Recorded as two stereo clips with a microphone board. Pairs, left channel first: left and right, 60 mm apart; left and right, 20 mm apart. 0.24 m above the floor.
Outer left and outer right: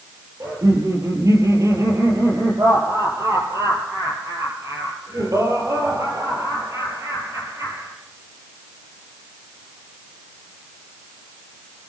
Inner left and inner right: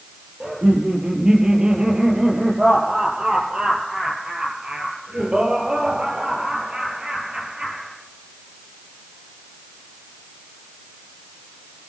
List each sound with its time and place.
0.4 s laughter: 55° right (ahead or behind), 7 m